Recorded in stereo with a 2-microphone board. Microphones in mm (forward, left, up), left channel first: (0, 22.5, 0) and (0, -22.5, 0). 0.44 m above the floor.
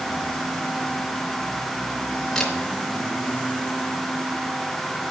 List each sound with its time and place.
2.4 s a camera shutter: 10° left (ahead or behind), 3 m